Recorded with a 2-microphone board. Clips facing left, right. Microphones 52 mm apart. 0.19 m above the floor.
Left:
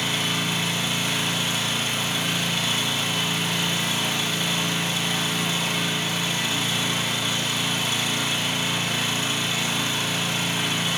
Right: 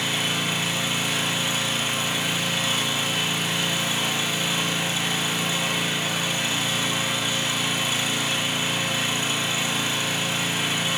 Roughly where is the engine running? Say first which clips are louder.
Even; centre.